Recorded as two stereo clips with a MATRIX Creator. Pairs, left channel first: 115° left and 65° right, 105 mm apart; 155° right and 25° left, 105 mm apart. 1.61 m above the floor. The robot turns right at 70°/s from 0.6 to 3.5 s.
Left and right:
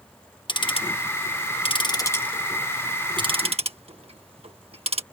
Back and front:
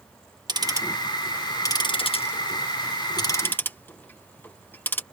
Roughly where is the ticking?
Left.